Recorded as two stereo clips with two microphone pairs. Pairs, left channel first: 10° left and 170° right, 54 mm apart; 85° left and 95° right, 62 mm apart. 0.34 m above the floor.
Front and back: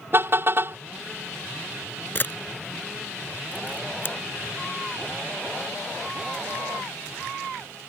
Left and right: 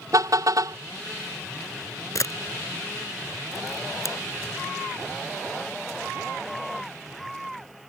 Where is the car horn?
125° right.